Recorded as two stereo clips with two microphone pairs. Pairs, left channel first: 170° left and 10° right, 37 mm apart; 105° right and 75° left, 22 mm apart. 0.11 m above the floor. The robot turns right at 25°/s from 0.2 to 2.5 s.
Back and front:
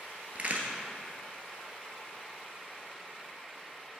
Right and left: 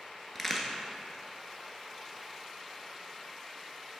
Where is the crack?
40° right, 1.0 m; by 0.7 s 35° right, 1.0 m.